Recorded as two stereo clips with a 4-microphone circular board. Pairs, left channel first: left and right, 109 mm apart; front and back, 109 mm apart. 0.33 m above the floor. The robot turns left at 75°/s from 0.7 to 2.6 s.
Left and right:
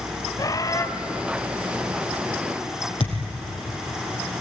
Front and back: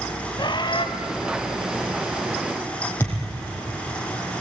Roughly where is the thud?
Left.